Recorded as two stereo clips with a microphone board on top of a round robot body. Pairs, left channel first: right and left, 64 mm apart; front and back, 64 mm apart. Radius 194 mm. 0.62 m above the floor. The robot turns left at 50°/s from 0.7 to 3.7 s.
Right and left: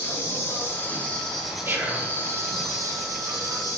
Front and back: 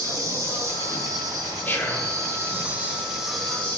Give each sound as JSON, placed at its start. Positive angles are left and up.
{"t": 0.0, "sound": "an insect", "azimuth_deg": -140, "distance_m": 2.5}
{"t": 1.6, "sound": "whispering", "azimuth_deg": 50, "distance_m": 1.5}